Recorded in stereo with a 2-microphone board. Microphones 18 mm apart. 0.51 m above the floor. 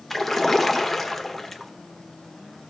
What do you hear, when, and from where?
0.1 s a splash: 10° left (ahead or behind), 1.1 m